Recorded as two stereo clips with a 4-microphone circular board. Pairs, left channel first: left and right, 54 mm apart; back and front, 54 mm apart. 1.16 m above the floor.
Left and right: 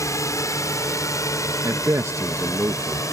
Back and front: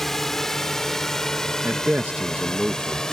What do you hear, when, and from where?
0.0 s a drone: 95° left; by 3.1 s 100° left
1.6 s a man speaking: 60° right